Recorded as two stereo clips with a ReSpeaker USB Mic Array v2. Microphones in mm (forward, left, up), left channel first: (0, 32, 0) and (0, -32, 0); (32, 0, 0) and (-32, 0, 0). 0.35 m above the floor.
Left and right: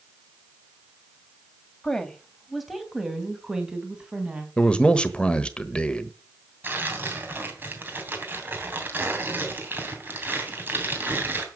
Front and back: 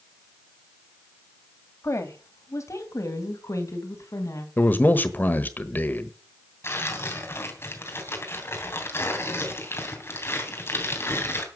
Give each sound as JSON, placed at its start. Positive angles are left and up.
{"t": 1.8, "sound": "a woman speaking", "azimuth_deg": 15, "distance_m": 2.0}
{"t": 4.6, "sound": "a man speaking", "azimuth_deg": 30, "distance_m": 1.2}
{"t": 6.6, "sound": "tearing paper", "azimuth_deg": -40, "distance_m": 3.0}